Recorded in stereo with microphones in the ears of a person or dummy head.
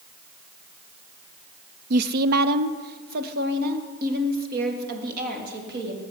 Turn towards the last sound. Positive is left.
turn(degrees=-50)  # may be behind; listen again after turning